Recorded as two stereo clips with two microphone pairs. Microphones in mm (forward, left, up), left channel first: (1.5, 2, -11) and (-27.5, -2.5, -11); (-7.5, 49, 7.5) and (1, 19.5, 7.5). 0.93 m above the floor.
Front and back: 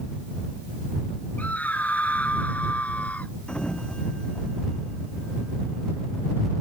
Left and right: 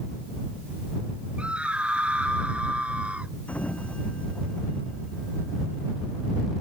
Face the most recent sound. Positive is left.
turn(degrees=70)